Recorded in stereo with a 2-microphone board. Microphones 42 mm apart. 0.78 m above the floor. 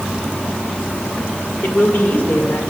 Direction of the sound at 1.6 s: 45° left (ahead or behind).